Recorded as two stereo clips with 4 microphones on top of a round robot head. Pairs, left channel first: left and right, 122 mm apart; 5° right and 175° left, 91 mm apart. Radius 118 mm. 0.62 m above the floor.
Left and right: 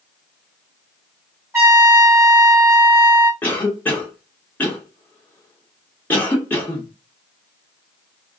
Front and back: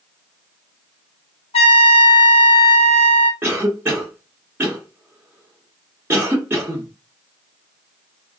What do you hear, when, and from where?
1.5 s a trumpet: 20° right, 1.1 m
3.4 s a cough: 145° left, 1.1 m